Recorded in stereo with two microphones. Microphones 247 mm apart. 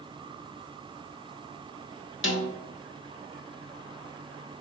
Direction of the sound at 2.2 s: 55° left (ahead or behind).